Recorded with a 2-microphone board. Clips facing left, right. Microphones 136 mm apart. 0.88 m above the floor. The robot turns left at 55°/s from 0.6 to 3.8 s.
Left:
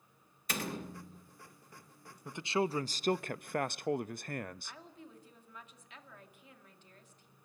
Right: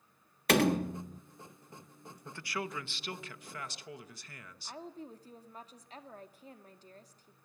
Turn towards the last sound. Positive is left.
turn(degrees=-35)  # may be behind; listen again after turning